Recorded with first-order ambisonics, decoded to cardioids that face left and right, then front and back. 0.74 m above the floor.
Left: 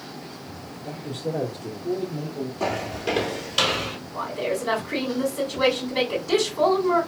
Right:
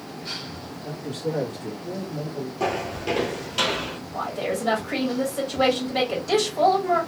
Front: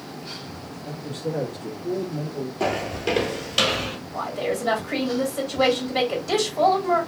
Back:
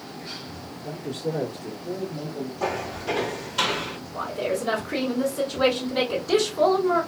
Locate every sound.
0.8 s a man speaking: 90° right, 1.3 m; by 2.5 s 15° right, 1.4 m
2.6 s footsteps: 15° right, 1.0 m; by 4.0 s 30° left, 1.2 m
4.1 s a woman speaking: 45° right, 2 m